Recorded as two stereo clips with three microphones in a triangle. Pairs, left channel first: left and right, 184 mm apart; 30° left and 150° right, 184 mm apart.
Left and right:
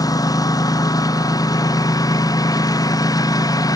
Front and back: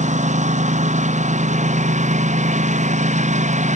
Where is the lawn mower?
160° left.